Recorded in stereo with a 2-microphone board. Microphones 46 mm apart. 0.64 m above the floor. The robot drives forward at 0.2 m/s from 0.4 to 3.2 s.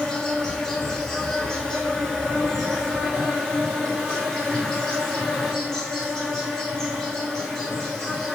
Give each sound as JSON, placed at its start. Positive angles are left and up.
{"t": 0.0, "sound": "an insect", "side_deg": 10, "distance_m": 0.9}